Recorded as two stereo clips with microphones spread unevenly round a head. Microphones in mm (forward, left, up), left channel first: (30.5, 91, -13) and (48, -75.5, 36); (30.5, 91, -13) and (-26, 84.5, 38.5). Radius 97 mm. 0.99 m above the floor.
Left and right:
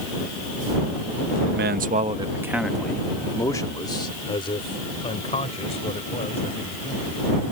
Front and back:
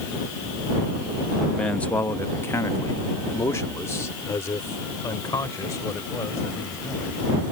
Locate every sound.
1.5 s a man speaking: 60° right; by 7.2 s 45° left